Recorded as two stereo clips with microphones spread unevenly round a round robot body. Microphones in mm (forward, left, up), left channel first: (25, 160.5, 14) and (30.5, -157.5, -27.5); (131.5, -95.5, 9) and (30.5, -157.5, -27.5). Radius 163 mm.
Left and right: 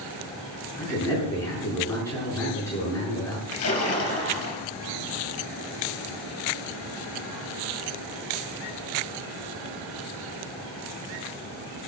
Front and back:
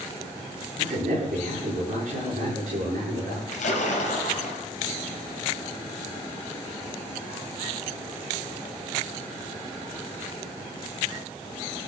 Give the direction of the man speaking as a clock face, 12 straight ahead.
6 o'clock.